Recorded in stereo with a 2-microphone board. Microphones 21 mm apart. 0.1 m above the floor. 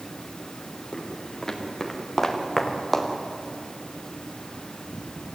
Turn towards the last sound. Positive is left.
turn(degrees=5)  # may be behind; listen again after turning